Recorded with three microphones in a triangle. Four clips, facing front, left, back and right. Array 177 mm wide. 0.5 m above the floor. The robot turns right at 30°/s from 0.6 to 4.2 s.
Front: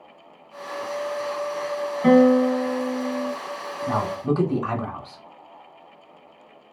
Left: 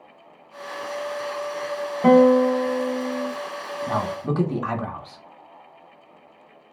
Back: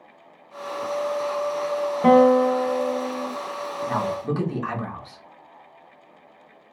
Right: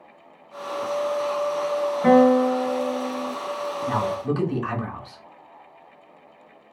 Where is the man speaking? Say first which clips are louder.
Even, front 3 dB; 40° left, 1.1 m; by 5.2 s 50° left, 1.1 m.